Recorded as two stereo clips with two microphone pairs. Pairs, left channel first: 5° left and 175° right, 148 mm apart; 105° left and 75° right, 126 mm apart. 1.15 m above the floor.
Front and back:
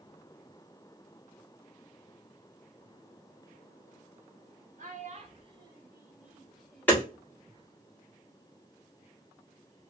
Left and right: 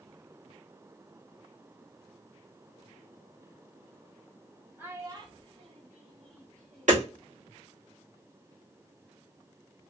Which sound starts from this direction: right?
Hammering, at 6.9 s.